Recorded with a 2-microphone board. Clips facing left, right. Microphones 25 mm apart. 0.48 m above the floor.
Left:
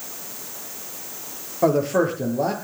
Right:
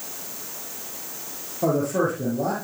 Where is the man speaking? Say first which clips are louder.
Left 3 dB; 35° left (ahead or behind), 8 m.